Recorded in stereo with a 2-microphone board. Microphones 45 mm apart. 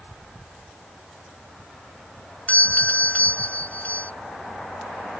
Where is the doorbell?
40° left (ahead or behind).